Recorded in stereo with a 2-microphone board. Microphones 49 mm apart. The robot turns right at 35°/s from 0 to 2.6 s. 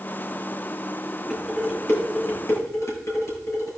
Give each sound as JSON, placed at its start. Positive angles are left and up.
{"t": 1.3, "sound": "dishes clattering", "side_deg": 30, "distance_m": 7.0}